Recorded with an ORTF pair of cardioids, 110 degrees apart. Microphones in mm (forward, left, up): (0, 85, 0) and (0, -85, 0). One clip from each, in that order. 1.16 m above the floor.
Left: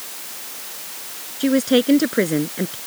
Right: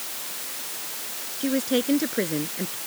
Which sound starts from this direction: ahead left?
A woman speaking, at 1.4 s.